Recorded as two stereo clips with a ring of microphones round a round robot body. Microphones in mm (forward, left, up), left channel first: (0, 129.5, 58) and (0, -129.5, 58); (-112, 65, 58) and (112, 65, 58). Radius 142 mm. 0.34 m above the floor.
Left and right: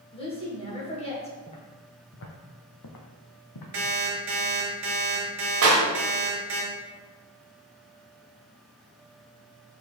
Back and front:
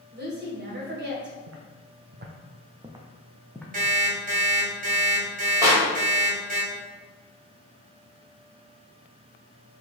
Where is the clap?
75° right, 1.4 m.